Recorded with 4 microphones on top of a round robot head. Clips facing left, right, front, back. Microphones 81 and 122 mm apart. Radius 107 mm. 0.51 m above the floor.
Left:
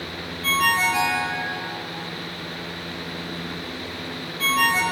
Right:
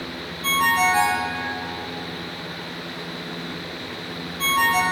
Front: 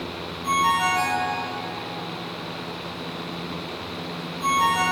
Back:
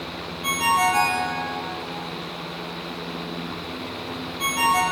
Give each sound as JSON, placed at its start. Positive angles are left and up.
{"t": 0.4, "sound": "a ringtone", "azimuth_deg": -150, "distance_m": 5.5}